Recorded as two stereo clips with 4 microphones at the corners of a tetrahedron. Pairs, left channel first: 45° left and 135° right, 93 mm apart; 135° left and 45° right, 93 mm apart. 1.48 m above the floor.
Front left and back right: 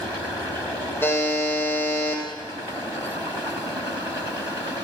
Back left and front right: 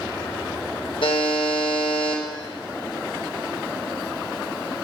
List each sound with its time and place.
1.0 s a buzzer: 110° left, 1.7 m